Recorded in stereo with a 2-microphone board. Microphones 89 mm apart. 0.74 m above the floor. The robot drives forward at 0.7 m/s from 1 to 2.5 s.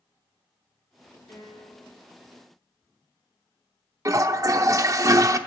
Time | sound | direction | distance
1.3 | a piano | 45° left (ahead or behind) | 3 m
4.0 | a toilet flushing | 40° right (ahead or behind) | 0.7 m